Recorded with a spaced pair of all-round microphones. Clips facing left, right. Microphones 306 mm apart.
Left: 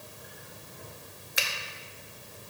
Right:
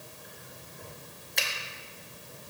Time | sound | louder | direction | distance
1.4 | a finger snap | even | 5° left (ahead or behind) | 0.9 m